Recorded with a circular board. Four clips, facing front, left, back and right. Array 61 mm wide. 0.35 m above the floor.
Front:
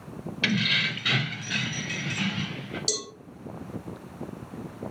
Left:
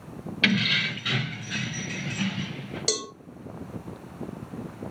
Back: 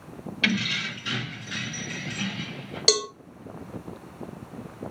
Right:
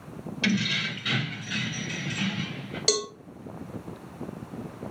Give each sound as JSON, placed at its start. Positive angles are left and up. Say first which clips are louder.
{"t": 0.4, "sound": "keys jangling", "louder": "left 3 dB, front 1 dB", "azimuth_deg": 100, "distance_m": 0.7}
{"t": 2.9, "sound": "a cowbell", "louder": "right 4 dB, back 13 dB", "azimuth_deg": -170, "distance_m": 0.7}